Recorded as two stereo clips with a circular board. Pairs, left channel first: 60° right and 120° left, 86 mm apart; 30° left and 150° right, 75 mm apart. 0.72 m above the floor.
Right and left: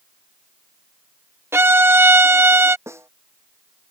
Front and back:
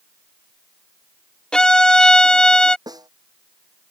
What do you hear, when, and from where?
1.5 s a violin: 100° left
2.9 s a snare drum: straight behind